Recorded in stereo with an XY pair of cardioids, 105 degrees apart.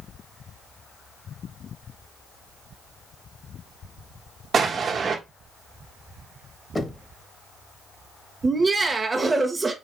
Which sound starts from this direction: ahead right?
An explosion, at 4.5 s.